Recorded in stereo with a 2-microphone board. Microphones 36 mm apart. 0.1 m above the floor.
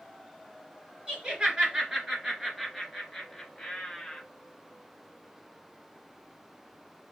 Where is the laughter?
25° right (ahead or behind), 1.8 m; by 4.2 s 10° left (ahead or behind), 1.9 m.